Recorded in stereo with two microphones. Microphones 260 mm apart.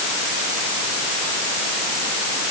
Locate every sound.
Only background noise.